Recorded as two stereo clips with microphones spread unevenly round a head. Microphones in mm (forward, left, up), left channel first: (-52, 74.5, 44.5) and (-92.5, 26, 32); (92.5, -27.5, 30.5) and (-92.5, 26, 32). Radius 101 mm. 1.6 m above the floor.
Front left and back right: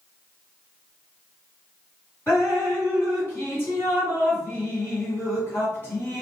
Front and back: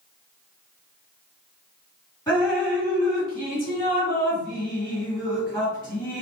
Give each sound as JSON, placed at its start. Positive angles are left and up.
{"t": 2.3, "sound": "dripping", "azimuth_deg": 50, "distance_m": 1.8}